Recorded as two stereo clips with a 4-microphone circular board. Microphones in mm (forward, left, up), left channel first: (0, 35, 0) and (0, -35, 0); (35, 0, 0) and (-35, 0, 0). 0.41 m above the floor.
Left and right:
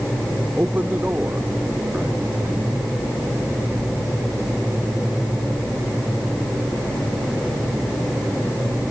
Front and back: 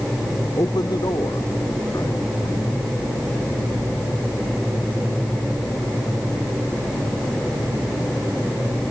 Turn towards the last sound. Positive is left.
turn(degrees=-25)